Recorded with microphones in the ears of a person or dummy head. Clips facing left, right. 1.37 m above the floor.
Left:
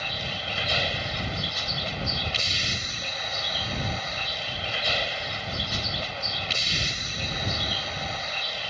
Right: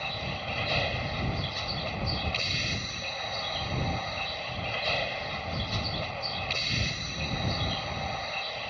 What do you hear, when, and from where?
0.0 s a vehicle: 10° left (ahead or behind)